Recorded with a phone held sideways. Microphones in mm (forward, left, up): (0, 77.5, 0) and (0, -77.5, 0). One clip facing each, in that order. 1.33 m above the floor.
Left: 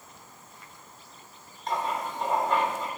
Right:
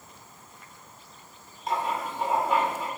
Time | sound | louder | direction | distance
1.7 | writing | right 1 dB | 5° right (ahead or behind) | 1.6 m